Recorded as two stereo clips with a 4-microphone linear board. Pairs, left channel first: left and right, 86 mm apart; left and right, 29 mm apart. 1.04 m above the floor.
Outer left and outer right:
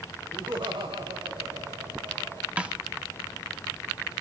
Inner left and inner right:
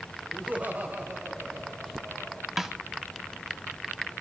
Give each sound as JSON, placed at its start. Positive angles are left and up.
{"t": 0.3, "sound": "laughter", "side_deg": -85, "distance_m": 4.0}
{"t": 2.6, "sound": "a snare drum", "side_deg": -15, "distance_m": 1.3}